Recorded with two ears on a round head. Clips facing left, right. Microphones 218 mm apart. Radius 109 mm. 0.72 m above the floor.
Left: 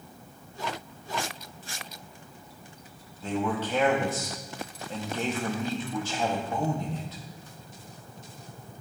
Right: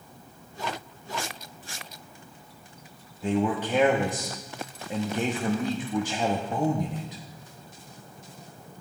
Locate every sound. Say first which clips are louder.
3.2 s a man speaking: right 3 dB; 15° right (ahead or behind), 0.7 m